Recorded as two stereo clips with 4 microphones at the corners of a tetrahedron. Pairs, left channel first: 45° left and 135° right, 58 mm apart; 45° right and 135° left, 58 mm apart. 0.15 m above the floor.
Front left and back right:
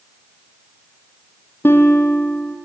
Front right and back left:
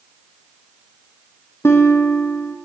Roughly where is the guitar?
Ahead.